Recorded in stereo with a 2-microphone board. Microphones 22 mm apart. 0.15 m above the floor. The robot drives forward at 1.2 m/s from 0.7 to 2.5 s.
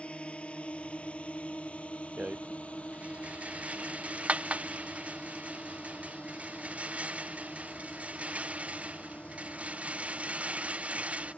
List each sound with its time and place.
0.0 s a drone: 60° left (ahead or behind); by 11.4 s 70° left (ahead or behind)
2.2 s a rattle: 75° right (ahead or behind)